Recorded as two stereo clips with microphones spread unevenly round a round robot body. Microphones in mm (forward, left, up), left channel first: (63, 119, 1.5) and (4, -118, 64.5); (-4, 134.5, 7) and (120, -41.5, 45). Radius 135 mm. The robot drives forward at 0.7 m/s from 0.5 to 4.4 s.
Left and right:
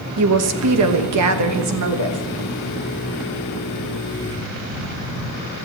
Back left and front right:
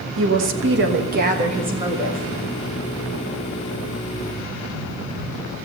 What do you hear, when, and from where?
0.2 s a woman speaking: 85° right, 1.2 m; by 2.3 s 140° right, 1.6 m